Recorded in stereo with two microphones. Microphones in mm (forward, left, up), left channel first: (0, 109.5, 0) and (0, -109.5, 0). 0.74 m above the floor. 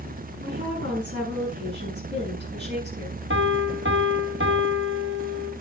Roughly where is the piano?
Right.